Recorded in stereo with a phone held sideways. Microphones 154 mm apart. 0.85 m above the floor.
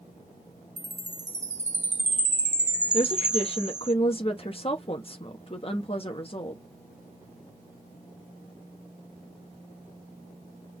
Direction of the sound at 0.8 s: 50° right (ahead or behind).